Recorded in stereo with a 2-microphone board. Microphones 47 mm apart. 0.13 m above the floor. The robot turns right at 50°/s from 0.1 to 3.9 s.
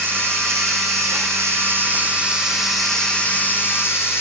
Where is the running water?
130° right, 1.3 m; by 4.2 s 60° left, 1.3 m.